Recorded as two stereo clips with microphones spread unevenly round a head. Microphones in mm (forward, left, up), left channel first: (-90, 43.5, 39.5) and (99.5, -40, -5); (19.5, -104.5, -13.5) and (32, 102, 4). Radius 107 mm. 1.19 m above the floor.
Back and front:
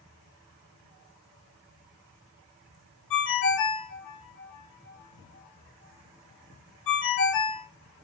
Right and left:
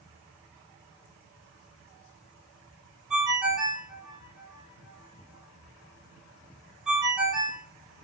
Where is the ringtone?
170° left, 0.7 m.